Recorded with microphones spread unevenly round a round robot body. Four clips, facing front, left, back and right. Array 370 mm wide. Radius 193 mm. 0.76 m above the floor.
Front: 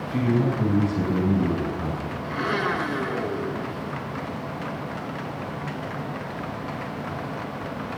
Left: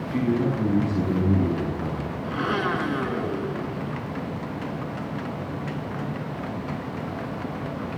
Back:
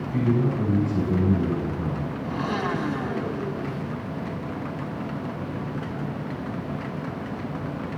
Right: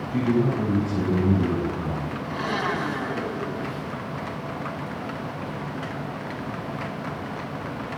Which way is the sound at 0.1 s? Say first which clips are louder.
Right 1 dB, front 1 dB; 145° right.